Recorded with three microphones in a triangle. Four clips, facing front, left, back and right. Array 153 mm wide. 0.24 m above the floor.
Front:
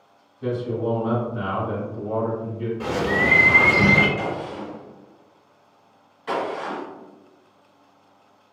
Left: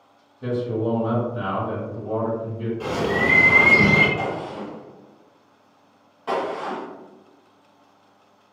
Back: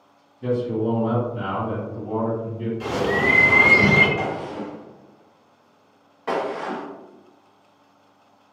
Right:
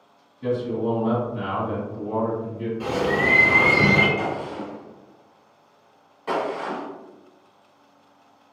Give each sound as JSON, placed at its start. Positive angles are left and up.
{"t": 0.4, "sound": "a man speaking", "azimuth_deg": 60, "distance_m": 1.3}
{"t": 2.8, "sound": "a bird", "azimuth_deg": 0, "distance_m": 0.7}
{"t": 4.2, "sound": "a gunshot", "azimuth_deg": 175, "distance_m": 0.9}